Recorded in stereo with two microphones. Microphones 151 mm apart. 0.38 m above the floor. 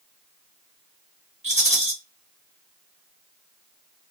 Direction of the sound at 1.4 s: 45° right (ahead or behind).